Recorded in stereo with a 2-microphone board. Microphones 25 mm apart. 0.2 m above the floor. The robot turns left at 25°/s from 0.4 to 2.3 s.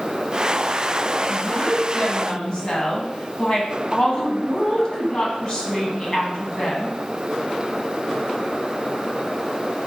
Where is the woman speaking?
35° left (ahead or behind), 1.2 m; by 7.0 s 40° left (ahead or behind), 1.2 m.